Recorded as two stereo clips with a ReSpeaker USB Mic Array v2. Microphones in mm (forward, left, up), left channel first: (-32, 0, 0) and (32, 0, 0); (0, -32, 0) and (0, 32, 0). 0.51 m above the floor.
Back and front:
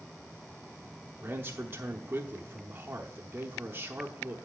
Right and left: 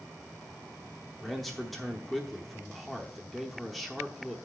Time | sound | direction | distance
1.2 | a man speaking | 5° right | 0.8 m